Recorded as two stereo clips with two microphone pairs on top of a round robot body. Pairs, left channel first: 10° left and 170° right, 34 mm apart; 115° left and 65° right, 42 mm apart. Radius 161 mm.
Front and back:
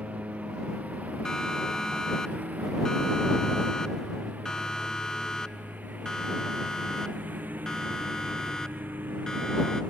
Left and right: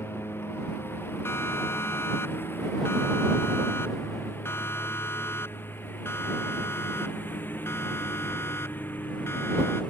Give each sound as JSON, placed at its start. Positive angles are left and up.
{"t": 0.0, "sound": "a lawn mower", "azimuth_deg": 140}
{"t": 1.2, "sound": "a siren", "azimuth_deg": 85}